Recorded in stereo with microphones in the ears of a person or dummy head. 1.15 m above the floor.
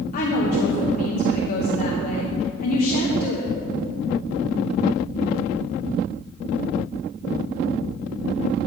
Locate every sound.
0.1 s a woman speaking: 50° left (ahead or behind), 0.8 m